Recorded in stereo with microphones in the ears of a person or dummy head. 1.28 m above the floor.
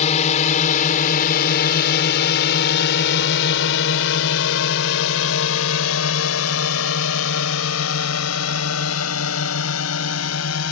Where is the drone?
35° left (ahead or behind); by 10.7 s 85° left.